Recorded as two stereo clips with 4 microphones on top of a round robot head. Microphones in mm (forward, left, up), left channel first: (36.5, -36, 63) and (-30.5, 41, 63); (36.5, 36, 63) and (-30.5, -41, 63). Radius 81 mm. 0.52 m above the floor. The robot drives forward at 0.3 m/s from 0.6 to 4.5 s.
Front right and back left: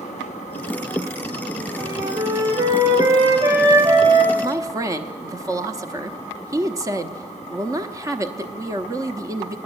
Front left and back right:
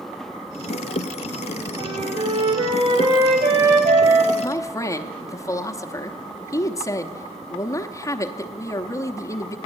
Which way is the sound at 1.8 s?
170° right.